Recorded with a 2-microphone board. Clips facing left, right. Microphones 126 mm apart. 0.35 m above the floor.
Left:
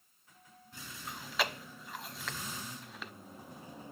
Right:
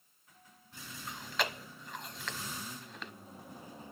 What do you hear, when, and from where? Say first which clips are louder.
1.1 s chewing: even; 5° left (ahead or behind), 1.0 m